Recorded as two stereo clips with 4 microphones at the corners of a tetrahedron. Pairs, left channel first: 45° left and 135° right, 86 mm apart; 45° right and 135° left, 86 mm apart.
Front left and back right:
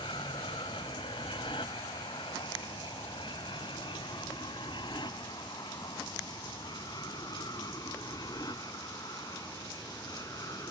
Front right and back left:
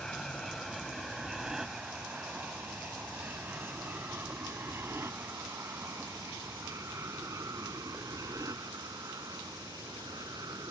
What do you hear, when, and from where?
0.0 s an aircraft: 40° left; by 10.7 s 90° left